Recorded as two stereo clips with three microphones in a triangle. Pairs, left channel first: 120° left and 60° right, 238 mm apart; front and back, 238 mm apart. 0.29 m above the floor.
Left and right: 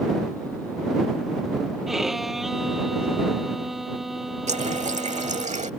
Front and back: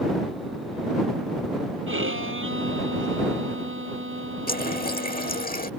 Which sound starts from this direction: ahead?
A running tap, at 4.5 s.